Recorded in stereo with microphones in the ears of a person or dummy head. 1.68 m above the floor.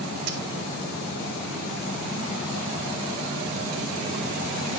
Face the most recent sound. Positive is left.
turn(degrees=-55)  # may be behind; listen again after turning